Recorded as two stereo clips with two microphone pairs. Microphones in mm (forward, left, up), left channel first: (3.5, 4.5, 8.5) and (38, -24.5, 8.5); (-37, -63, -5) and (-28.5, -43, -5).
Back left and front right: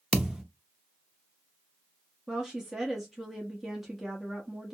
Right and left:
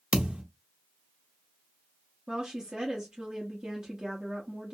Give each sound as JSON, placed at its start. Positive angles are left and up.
{"t": 0.1, "sound": "a thud", "azimuth_deg": 35, "distance_m": 0.5}
{"t": 2.3, "sound": "a woman speaking", "azimuth_deg": 40, "distance_m": 0.8}